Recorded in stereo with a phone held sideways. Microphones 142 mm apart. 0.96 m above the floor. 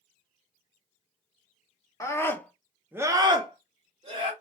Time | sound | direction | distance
2.0 | a scream | 20° left (ahead or behind) | 0.8 m